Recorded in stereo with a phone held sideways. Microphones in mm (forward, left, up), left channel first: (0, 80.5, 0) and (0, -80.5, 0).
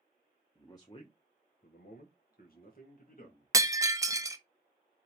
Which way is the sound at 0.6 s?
15° left (ahead or behind).